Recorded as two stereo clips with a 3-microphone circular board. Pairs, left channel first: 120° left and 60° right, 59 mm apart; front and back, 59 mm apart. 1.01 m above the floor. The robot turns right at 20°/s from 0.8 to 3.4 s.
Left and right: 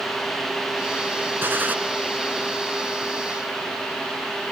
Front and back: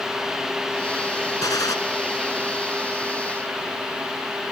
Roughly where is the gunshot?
Ahead.